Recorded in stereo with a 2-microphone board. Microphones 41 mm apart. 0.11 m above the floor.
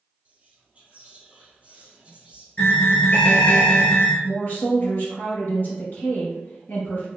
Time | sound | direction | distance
0.2 | whispering | 30° right (ahead or behind) | 1.3 m
2.6 | an alarm | 40° left (ahead or behind) | 1.3 m
4.2 | a woman speaking | 50° left (ahead or behind) | 1.5 m